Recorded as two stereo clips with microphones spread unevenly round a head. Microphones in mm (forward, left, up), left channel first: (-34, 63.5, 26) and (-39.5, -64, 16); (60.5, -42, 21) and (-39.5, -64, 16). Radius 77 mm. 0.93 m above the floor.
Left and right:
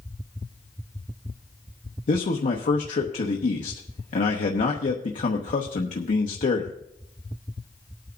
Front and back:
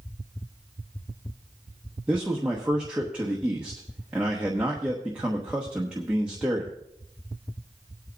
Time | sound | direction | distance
2.1 | a man speaking | 110° left | 1.0 m